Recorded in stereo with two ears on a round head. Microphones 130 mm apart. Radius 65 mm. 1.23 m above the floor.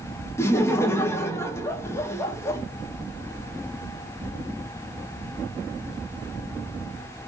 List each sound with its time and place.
0.4 s laughter: 20° left (ahead or behind), 0.6 m